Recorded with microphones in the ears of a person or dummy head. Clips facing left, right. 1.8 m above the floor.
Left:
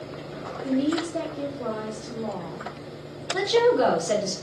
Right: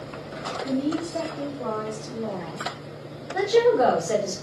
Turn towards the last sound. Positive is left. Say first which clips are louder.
# right 1 dB
turn(degrees=50)  # may be behind; listen again after turning